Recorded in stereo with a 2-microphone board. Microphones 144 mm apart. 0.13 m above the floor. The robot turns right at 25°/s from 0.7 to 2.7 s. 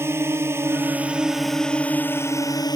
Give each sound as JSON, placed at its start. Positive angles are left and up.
{"t": 0.0, "sound": "a drone", "azimuth_deg": -20}